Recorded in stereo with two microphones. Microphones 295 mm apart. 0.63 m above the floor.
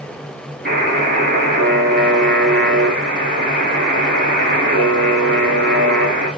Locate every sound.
0.7 s a buzzer: 40° right (ahead or behind), 3.5 m